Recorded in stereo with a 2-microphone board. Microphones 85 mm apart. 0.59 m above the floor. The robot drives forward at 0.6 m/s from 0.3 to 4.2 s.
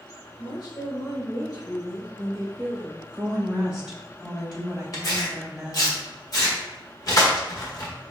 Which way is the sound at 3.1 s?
10° right (ahead or behind).